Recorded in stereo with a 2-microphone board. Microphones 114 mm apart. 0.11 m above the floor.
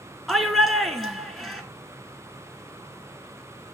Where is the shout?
Centre (ahead or behind), 1.1 m.